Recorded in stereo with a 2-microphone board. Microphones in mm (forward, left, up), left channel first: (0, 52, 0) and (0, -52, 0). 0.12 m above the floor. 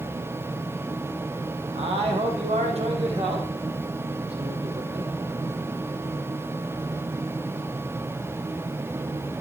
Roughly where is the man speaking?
Right.